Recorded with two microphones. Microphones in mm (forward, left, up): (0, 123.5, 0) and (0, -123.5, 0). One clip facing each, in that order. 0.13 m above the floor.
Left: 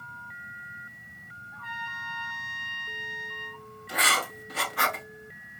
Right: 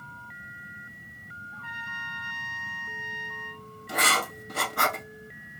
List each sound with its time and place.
1.5 s a trumpet: 45° right (ahead or behind), 1.9 m
3.9 s writing: 50° right (ahead or behind), 0.9 m